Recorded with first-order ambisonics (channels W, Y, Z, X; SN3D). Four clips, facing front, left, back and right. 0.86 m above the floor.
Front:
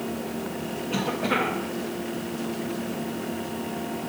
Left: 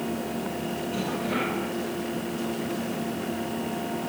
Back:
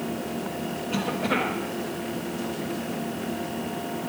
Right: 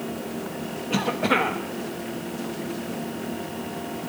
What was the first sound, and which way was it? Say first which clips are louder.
A cough: right 8 dB, front 1 dB; 90° right.